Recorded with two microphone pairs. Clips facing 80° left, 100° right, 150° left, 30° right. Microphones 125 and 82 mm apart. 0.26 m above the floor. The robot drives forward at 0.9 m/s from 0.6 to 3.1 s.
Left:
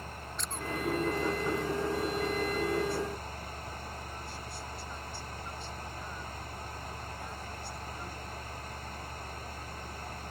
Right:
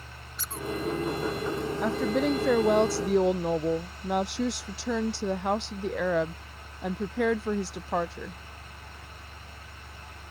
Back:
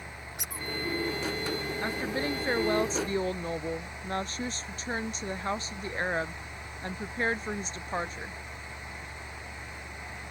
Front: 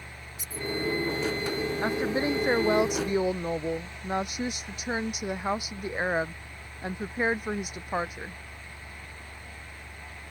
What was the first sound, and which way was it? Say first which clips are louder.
A squeak: right 4 dB, front 5 dB; 175° left.